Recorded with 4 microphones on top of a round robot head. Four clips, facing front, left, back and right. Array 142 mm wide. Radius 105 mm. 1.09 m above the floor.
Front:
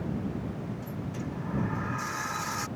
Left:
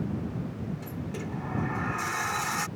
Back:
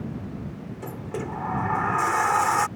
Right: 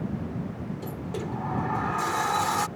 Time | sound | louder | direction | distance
0.8 | a sliding door | right 3 dB, back 4 dB | 155° right | ?